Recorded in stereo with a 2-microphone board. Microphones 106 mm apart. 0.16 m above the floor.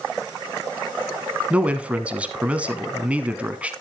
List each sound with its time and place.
1.5 s a man speaking: 10° right (ahead or behind), 1.1 m